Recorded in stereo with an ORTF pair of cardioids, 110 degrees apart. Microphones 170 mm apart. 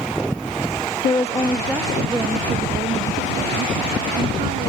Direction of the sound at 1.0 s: 30° left.